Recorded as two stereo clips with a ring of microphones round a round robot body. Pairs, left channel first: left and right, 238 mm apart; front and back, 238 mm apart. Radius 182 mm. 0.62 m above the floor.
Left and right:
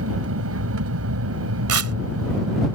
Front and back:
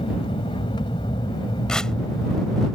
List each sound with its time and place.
0.0 s an aircraft: 75° right; by 2.8 s 80° right
1.7 s tearing paper: 90° right